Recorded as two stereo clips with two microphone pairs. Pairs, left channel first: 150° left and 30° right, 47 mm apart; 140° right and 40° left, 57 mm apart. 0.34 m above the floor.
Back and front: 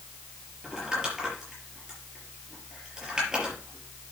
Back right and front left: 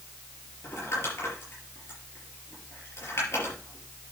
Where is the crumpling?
105° right, 5.5 m.